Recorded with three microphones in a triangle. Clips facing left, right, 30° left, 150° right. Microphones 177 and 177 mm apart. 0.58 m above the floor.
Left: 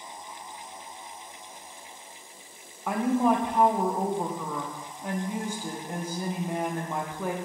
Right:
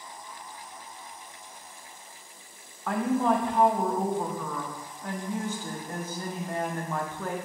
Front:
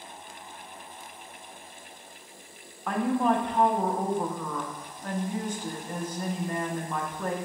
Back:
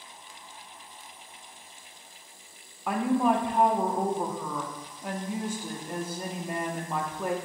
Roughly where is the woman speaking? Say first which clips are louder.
Left 1 dB, back 1 dB; behind left.